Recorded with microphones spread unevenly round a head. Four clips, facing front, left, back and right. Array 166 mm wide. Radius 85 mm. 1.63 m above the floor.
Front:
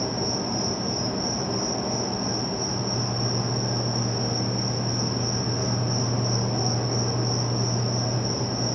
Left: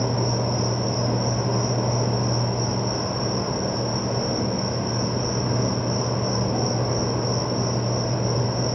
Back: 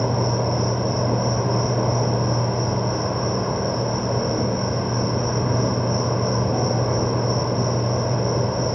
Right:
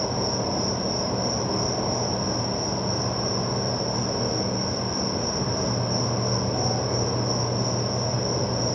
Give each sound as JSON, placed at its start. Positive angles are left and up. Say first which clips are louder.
{"t": 0.0, "sound": "an insect", "louder": "left 2 dB, back 6 dB", "azimuth_deg": 170, "distance_m": 2.5}